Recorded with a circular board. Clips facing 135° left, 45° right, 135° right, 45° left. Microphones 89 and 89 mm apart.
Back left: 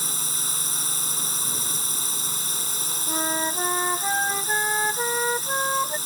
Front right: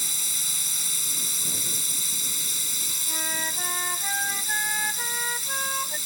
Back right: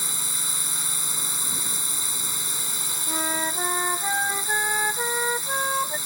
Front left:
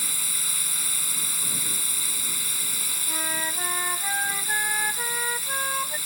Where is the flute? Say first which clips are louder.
Back left 7 dB, back right 4 dB; 165° left.